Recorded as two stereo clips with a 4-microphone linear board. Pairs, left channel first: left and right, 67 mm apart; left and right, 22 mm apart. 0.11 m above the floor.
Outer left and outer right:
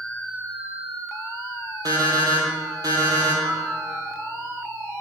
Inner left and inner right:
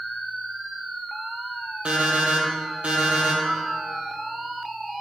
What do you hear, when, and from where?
1.9 s an alarm clock: 65° right (ahead or behind), 1.8 m
3.4 s a piano: 40° right (ahead or behind), 3.5 m